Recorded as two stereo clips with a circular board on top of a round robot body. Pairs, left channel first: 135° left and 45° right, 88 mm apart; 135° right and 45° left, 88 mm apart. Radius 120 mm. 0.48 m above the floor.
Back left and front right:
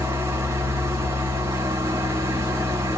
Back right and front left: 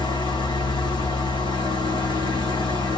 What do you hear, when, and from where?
0.0 s an engine running: 100° right, 3 m